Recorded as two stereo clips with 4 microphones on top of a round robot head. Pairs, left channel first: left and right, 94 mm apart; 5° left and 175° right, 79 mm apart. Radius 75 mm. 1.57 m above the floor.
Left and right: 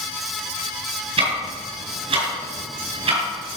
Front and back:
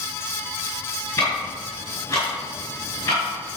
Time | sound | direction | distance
1.2 | ticking | 70° right | 4.5 m